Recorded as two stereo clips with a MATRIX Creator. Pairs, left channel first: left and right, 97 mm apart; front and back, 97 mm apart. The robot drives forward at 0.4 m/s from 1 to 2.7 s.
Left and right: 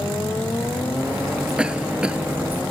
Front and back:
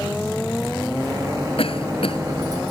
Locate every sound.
1.6 s a cough: 10° right